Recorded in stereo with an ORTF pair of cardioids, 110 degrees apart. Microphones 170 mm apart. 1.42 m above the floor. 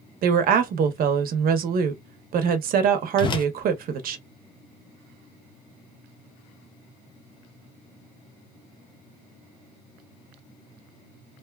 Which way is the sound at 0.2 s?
60° right.